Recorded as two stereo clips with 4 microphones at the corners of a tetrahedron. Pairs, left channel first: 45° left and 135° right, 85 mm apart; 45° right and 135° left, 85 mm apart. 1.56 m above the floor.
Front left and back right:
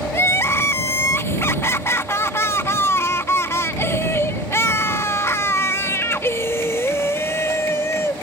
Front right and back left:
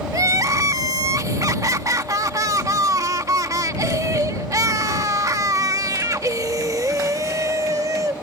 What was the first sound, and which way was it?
Crying, 100° left.